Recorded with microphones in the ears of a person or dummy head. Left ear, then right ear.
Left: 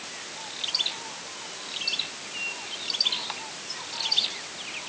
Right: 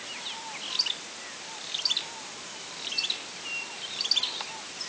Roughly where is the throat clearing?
I don't hear throat clearing.